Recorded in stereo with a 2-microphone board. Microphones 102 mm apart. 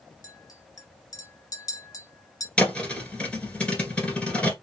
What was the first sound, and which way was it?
A clink, 40° left (ahead or behind).